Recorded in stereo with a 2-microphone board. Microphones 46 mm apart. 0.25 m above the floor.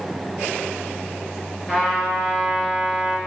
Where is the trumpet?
10° left (ahead or behind), 3.5 m.